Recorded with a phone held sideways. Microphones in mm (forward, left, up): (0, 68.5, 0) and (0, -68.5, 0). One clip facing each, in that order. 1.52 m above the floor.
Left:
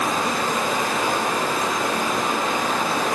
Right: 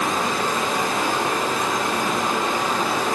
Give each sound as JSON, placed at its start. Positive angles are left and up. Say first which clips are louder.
{"t": 0.0, "sound": "running water", "louder": "even", "side_deg": -20, "distance_m": 1.1}